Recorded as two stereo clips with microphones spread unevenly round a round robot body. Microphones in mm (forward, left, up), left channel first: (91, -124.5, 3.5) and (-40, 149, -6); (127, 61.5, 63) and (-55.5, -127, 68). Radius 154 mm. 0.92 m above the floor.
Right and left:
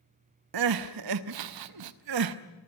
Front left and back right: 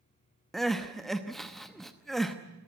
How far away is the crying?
About 0.8 m.